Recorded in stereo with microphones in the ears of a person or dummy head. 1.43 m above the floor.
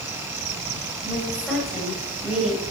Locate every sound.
1.0 s a woman speaking: 5° left (ahead or behind), 8 m; by 2.6 s 5° right (ahead or behind), 8.5 m